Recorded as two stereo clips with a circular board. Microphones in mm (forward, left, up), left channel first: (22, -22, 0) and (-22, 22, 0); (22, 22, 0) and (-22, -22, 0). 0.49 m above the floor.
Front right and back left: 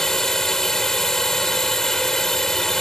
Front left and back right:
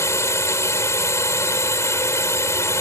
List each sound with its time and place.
0.0 s a drone: 35° left